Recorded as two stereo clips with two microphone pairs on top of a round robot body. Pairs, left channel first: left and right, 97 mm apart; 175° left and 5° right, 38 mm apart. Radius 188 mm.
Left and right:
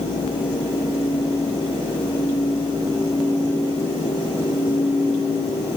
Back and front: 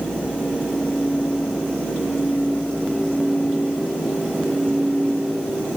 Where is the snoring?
I don't hear snoring.